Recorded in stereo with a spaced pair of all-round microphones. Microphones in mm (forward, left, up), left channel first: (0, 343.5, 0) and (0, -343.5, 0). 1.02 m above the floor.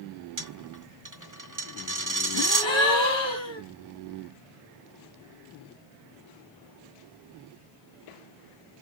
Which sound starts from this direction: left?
A gasp, at 2.3 s.